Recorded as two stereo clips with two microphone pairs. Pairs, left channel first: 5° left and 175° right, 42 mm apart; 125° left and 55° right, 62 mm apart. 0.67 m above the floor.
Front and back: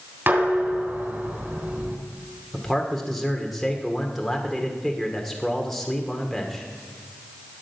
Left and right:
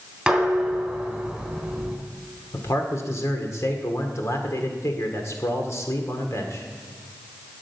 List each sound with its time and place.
0.3 s dishes clattering: 140° right, 3.5 m
2.5 s a man speaking: 90° left, 1.8 m